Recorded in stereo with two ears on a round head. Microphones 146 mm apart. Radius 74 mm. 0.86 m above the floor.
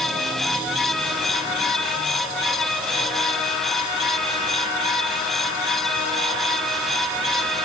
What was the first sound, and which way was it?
Only background noise.